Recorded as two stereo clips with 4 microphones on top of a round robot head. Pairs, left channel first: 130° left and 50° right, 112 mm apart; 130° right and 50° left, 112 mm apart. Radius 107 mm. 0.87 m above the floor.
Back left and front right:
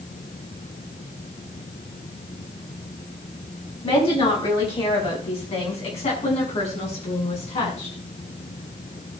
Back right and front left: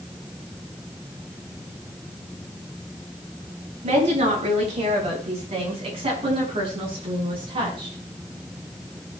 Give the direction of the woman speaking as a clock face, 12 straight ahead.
9 o'clock.